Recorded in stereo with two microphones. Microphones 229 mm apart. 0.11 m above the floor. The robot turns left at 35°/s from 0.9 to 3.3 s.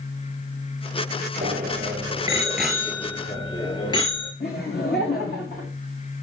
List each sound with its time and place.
1.4 s a bicycle bell: 40° right (ahead or behind), 7 m; by 4.3 s 25° left (ahead or behind), 7 m
4.4 s laughter: 45° left (ahead or behind), 8 m